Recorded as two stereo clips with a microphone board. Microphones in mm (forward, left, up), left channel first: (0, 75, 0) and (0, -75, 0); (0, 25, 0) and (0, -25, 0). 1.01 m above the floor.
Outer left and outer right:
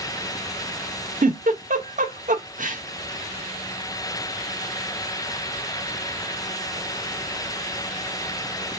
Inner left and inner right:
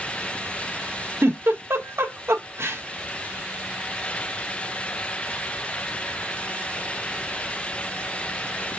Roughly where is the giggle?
Right.